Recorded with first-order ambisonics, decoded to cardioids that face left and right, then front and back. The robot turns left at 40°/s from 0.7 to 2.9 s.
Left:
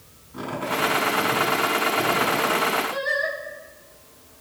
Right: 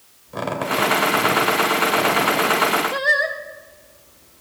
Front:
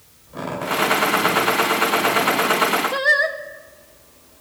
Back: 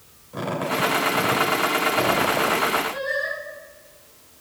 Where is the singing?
30° right, 1.2 m.